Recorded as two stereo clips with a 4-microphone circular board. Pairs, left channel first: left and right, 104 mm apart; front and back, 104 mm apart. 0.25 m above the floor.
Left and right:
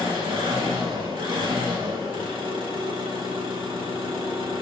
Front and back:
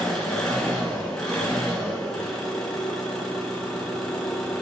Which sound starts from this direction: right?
An engine running, at 0.0 s.